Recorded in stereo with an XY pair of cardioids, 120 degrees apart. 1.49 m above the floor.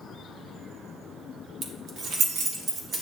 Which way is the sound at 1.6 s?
70° right.